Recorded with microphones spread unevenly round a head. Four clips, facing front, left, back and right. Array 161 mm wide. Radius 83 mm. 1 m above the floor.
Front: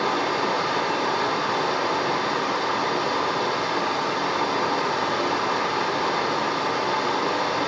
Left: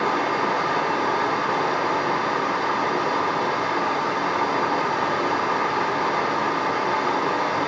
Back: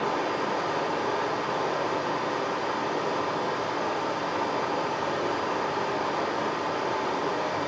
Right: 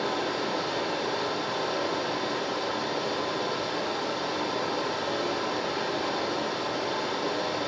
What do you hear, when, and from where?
0.0 s running water: 60° left, 4 m